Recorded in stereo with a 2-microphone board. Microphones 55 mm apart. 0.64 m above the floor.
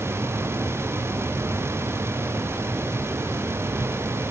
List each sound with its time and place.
Only background noise.